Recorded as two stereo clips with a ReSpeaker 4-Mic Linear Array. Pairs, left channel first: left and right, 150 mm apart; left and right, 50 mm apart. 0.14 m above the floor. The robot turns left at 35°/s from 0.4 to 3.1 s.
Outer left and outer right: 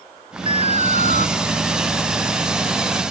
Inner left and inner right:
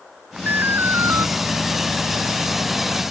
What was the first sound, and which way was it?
An alarm, 35° right (ahead or behind).